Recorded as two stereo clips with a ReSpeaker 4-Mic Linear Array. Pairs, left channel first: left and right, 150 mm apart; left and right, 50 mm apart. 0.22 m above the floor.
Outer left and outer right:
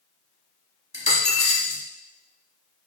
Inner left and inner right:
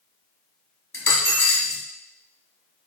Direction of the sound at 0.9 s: 45° left (ahead or behind).